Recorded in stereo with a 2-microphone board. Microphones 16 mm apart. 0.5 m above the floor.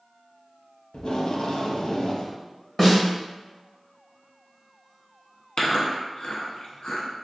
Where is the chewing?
65° left (ahead or behind), 0.9 m.